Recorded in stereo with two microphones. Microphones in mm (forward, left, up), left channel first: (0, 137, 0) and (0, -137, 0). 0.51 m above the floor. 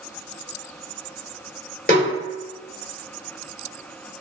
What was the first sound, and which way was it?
A snare drum, 35° left (ahead or behind).